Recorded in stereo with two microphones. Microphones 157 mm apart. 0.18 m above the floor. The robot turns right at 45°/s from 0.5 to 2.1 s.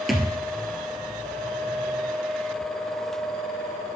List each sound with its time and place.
0.1 s a thud: centre (ahead or behind), 1.6 m